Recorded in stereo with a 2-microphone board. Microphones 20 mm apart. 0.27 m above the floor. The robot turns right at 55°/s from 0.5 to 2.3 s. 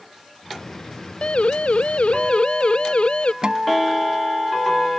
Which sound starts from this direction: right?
A guitar, at 3.4 s.